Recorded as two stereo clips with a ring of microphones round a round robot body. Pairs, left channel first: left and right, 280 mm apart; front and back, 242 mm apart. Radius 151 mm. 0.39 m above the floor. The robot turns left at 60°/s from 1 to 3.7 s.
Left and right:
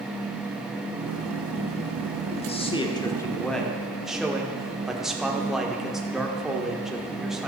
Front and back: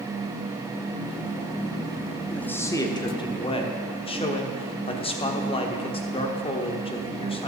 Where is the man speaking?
80° left, 1.1 m; by 7.5 s 5° right, 1.1 m.